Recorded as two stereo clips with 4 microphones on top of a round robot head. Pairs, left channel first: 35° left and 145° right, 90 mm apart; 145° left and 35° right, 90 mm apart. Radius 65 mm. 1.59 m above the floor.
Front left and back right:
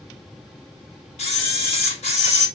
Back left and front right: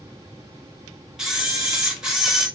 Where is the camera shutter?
50° left, 3 m.